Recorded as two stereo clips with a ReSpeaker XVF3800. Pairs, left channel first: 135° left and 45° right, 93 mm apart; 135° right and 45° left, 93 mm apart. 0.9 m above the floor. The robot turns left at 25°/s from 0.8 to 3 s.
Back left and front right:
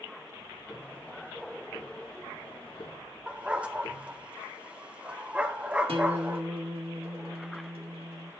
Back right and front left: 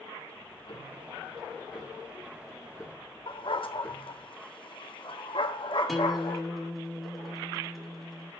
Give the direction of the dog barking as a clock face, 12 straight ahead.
4 o'clock.